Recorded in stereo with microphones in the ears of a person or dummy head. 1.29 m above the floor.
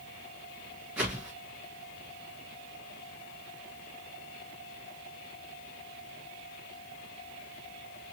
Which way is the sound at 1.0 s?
15° right (ahead or behind).